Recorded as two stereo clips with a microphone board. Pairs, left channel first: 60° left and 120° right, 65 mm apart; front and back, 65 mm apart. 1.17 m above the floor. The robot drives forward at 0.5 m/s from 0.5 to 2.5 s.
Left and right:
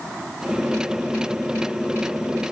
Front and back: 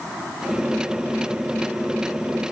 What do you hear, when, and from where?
Only background noise.